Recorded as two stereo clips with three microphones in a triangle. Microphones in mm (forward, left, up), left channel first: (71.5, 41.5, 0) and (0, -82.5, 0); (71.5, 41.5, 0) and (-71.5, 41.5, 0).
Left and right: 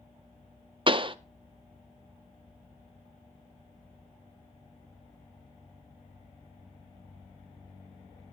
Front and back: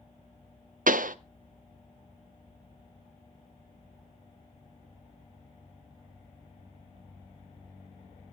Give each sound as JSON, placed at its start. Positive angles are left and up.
{"t": 0.9, "sound": "a pop", "azimuth_deg": -170, "distance_m": 0.6}